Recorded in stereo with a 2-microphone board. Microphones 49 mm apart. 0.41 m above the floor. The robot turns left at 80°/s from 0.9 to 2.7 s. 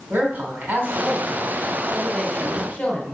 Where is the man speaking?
90° right, 1.7 m; by 3.1 s 125° left, 1.7 m.